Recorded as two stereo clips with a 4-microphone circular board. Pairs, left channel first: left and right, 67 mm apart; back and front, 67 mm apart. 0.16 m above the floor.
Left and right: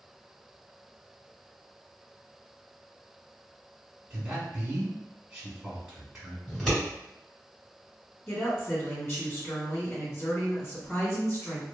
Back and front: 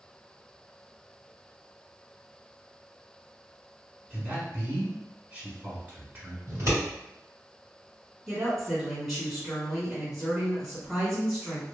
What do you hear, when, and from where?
4.1 s a man speaking: 15° right, 1.1 m
6.5 s scissors: 10° left, 1.9 m
8.3 s a woman speaking: 85° left, 1.9 m